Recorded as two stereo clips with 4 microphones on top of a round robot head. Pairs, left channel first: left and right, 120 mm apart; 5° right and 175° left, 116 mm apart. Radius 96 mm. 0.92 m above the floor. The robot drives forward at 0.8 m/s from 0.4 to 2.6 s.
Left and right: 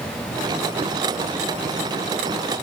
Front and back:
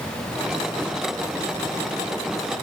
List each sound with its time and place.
Only background noise.